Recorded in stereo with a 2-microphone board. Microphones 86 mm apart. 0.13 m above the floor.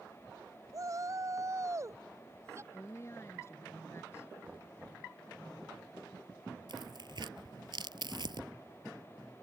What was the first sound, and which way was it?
A shout, 40° right (ahead or behind).